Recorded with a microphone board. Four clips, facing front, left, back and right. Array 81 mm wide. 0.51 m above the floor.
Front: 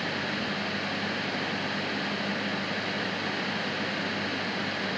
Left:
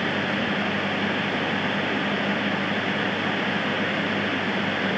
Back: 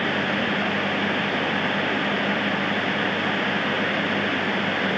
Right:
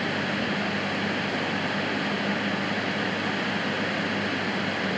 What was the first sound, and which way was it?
Only background noise.